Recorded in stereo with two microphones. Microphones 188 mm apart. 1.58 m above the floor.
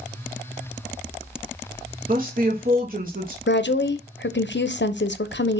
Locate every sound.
2.1 s a woman speaking: 50° right (ahead or behind), 1.3 m
3.5 s a woman speaking: 75° left (ahead or behind), 0.8 m